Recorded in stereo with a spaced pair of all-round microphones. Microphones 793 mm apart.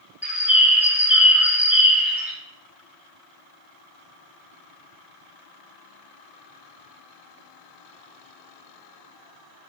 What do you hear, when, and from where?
0.2 s a bird: centre (ahead or behind), 1.1 m